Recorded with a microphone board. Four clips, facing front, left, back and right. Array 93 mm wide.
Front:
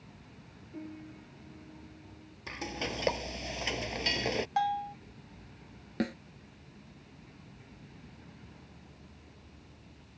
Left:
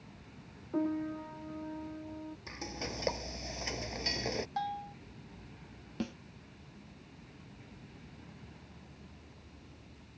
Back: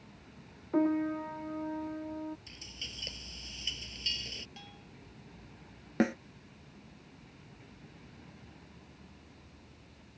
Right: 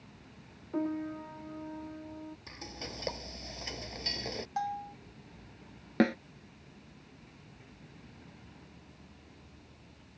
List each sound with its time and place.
0.7 s a piano: 175° left
2.5 s frying: 10° left
4.6 s a bell: 10° right
6.0 s a snare drum: 110° right